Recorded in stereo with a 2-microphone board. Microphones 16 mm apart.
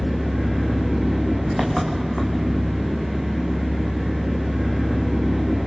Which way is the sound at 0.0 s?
20° right (ahead or behind).